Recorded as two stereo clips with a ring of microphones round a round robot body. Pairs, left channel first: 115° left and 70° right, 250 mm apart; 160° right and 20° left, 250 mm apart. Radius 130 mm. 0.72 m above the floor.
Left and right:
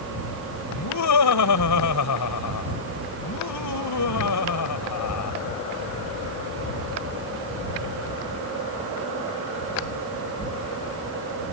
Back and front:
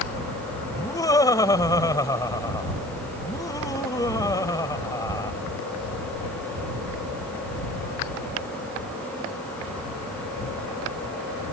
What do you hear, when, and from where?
0.7 s laughter: 125° left